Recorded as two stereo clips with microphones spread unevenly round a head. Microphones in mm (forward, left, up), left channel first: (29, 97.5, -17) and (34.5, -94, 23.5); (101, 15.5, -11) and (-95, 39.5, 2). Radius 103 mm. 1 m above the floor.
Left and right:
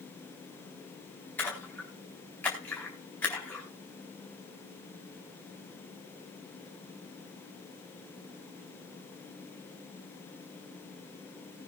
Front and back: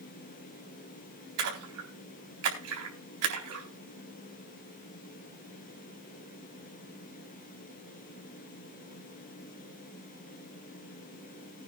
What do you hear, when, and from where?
1.4 s a splash: 175° left, 4 m